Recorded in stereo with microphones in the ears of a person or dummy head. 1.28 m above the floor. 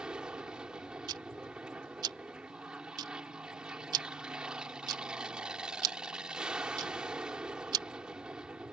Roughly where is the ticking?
Right.